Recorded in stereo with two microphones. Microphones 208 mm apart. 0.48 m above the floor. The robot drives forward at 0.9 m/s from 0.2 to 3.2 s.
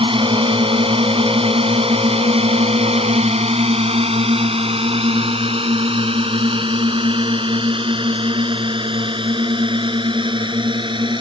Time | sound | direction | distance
0.0 | a drone | 25° right (ahead or behind) | ?